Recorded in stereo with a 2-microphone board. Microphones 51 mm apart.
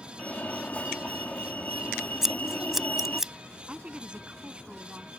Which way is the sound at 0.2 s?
25° left (ahead or behind).